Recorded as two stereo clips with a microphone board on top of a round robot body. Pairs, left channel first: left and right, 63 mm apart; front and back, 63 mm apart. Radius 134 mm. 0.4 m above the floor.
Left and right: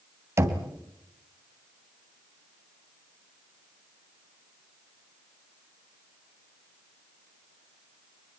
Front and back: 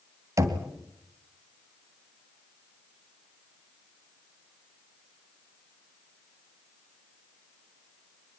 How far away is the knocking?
About 2.5 m.